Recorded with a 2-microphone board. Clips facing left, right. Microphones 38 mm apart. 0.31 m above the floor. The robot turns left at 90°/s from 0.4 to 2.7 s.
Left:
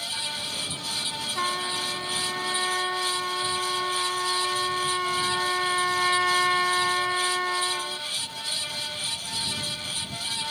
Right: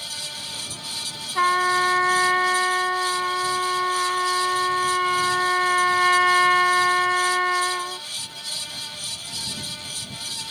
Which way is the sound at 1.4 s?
30° right.